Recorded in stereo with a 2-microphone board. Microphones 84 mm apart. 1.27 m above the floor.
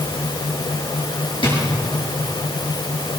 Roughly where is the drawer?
Left.